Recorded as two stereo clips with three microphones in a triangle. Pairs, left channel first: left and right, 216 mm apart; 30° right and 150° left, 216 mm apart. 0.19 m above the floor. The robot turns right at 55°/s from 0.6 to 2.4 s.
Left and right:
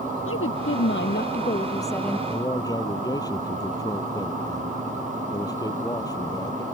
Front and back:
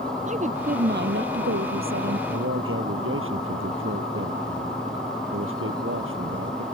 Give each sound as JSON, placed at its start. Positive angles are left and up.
{"t": 0.3, "sound": "a woman speaking", "azimuth_deg": 95}
{"t": 2.3, "sound": "a man speaking", "azimuth_deg": 155}